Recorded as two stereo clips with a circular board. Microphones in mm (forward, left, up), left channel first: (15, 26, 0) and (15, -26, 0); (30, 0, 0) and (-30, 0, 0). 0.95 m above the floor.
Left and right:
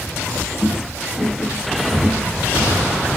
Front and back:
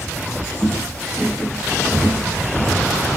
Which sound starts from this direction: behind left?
Footsteps, at 0.6 s.